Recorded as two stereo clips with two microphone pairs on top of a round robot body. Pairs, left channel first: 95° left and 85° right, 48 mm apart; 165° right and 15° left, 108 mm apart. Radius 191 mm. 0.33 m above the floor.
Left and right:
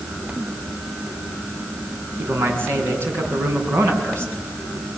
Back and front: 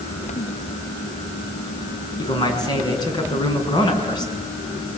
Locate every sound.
2.2 s a man speaking: 115° right, 6.5 m